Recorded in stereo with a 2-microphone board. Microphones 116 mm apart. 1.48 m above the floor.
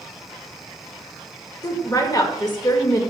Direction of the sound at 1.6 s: 35° left (ahead or behind).